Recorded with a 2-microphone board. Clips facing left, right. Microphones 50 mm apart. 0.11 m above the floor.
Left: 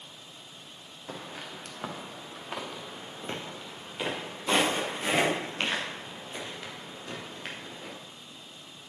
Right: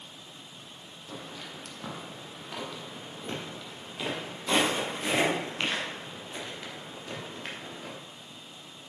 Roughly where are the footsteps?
Left.